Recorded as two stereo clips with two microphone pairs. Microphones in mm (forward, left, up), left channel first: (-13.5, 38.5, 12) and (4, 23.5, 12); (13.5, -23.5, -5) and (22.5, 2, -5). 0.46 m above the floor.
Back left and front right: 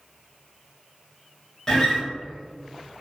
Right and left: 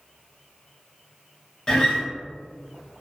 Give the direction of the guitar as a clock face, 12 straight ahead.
6 o'clock.